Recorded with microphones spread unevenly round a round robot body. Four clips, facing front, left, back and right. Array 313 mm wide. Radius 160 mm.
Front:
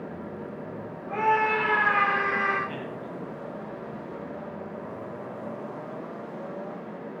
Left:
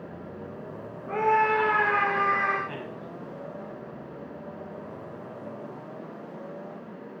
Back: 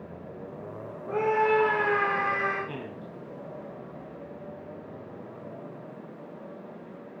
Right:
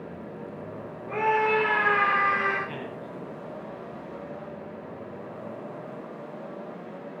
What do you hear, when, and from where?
1.1 s a scream: straight behind, 7.5 m; by 2.6 s 175° right, 8 m
2.7 s a man speaking: 175° right, 4 m